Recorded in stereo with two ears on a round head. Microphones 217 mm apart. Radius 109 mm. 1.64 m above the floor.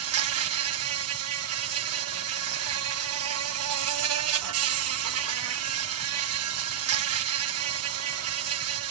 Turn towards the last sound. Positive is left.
turn(degrees=-65)  # may be behind; listen again after turning